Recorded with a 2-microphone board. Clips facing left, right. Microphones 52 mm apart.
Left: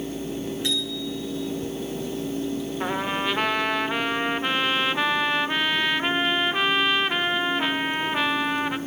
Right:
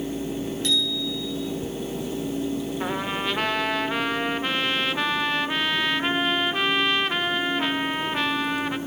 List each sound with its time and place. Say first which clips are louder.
0.6 s a bicycle bell: right 2 dB; 15° left (ahead or behind), 8 m
2.8 s a trumpet: left 4 dB; 5° left (ahead or behind), 0.8 m